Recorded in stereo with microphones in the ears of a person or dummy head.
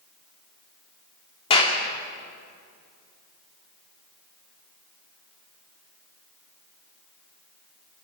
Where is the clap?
30° left (ahead or behind), 3 m.